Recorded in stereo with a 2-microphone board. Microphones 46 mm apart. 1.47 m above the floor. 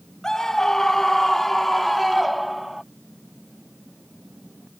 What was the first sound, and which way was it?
A scream, 10° left (ahead or behind).